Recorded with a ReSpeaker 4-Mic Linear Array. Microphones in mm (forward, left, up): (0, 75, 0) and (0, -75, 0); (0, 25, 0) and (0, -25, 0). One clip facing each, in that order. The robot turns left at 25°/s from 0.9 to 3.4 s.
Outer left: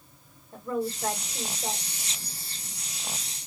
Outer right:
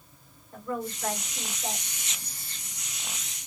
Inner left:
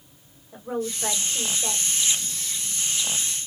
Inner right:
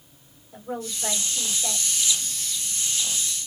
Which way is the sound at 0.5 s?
30° left (ahead or behind).